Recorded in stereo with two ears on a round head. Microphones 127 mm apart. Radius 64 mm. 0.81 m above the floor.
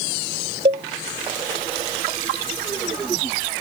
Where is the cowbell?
40° right (ahead or behind).